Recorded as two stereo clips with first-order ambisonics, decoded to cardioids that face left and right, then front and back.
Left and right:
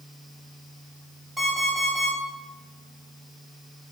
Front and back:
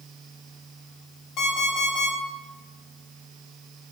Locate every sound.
1.4 s an alarm clock: 25° right, 1.3 m